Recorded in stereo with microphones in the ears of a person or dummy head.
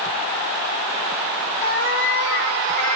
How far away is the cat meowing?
About 3.5 m.